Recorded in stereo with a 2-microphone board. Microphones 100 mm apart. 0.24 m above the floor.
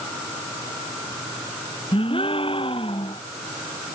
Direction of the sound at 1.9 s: 60° left (ahead or behind).